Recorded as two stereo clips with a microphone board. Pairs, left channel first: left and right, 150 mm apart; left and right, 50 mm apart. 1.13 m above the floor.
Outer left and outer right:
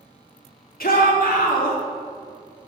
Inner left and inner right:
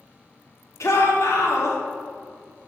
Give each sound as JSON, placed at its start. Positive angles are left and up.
{"t": 0.8, "sound": "a shout", "side_deg": 80, "distance_m": 2.5}